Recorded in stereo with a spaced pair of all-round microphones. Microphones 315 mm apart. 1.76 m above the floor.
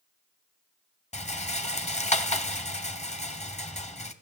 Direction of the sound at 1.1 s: 20° left (ahead or behind).